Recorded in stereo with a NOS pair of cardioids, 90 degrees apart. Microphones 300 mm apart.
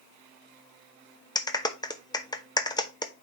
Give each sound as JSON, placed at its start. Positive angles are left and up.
{"t": 1.4, "sound": "a clap", "azimuth_deg": 15, "distance_m": 0.8}